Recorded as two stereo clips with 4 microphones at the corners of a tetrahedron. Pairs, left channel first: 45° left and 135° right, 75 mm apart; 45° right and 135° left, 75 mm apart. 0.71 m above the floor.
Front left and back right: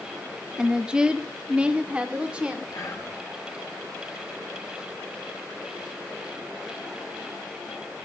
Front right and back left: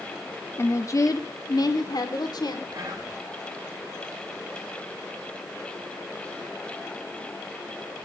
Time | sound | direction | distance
0.6 | a woman speaking | 60° right | 1.3 m
2.7 | whispering | 90° left | 6.5 m